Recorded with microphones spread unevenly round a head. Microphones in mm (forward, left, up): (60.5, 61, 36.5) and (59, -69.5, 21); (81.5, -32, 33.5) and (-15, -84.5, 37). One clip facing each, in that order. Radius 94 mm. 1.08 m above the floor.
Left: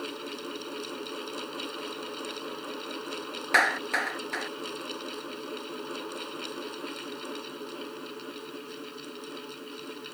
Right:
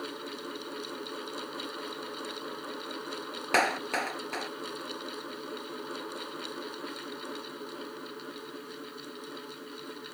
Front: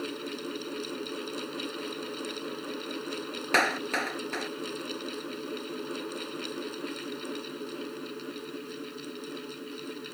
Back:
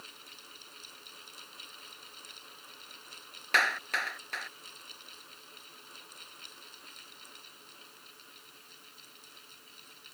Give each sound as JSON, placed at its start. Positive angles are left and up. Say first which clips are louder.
{"t": 0.0, "sound": "a fan", "louder": "left 2 dB, front 21 dB", "azimuth_deg": 10}
{"t": 3.5, "sound": "a clap", "louder": "even, front 4 dB", "azimuth_deg": -15}